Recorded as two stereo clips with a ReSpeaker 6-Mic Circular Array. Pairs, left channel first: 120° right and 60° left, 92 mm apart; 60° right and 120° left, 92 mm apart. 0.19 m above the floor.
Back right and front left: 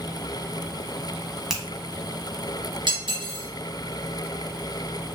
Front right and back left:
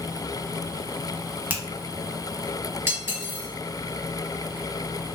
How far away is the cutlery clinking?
About 1.6 m.